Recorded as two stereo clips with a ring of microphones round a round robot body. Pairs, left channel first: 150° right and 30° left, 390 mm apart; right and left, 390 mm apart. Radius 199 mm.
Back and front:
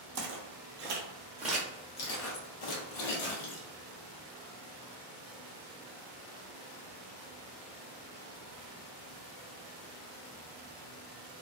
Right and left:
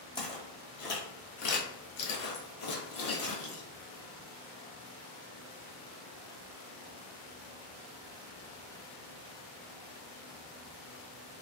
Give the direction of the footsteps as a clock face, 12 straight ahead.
12 o'clock.